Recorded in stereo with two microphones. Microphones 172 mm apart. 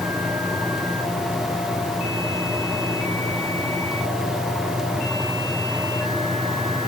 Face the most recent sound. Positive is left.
No sound to turn to.